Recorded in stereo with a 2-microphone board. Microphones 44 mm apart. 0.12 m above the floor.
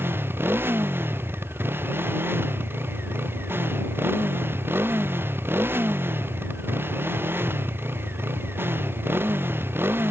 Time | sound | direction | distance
0.0 | a motorcycle | 60° right (ahead or behind) | ?